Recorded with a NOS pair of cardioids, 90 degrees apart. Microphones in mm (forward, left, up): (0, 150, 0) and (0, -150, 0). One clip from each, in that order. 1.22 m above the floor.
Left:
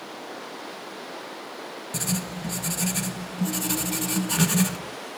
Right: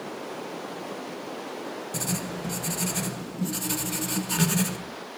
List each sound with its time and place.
1.9 s writing: 20° left, 1.2 m